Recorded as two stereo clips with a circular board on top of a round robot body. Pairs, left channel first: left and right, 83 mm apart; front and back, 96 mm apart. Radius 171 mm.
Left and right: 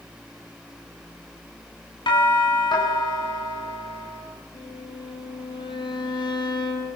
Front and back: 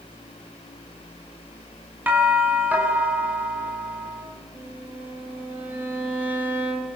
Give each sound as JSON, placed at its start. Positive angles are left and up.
{"t": 2.1, "sound": "a doorbell", "azimuth_deg": 110, "distance_m": 7.5}
{"t": 4.5, "sound": "a violin", "azimuth_deg": 110, "distance_m": 7.5}